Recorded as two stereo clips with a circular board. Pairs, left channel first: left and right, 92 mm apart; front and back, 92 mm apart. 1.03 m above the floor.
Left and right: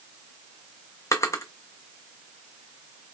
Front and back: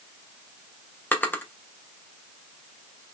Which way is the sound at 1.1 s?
55° left.